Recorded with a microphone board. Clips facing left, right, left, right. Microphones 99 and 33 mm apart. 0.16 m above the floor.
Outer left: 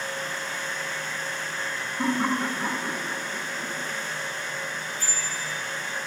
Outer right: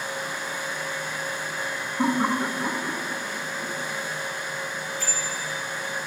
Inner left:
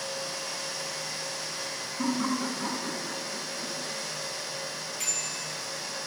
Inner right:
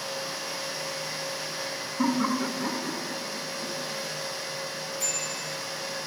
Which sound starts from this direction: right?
Laughter, at 2.0 s.